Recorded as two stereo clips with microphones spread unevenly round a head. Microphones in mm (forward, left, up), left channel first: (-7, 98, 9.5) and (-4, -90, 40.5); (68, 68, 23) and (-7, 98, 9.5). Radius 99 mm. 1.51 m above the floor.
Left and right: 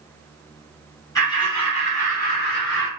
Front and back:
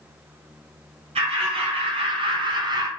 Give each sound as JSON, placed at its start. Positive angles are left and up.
{"t": 1.1, "sound": "laughter", "azimuth_deg": 165, "distance_m": 1.2}